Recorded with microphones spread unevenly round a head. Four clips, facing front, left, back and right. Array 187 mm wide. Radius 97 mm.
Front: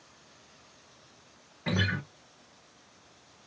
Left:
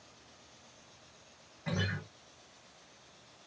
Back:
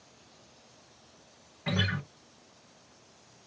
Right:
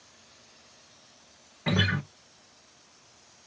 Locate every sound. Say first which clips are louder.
1.7 s a guitar: right 9 dB, front 1 dB; 65° right, 0.7 m